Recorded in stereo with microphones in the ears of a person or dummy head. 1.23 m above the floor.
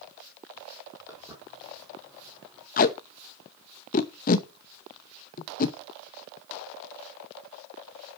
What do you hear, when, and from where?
1.1 s footsteps: 15° right (ahead or behind), 3 m
2.8 s tape being pulled: 45° left (ahead or behind), 0.8 m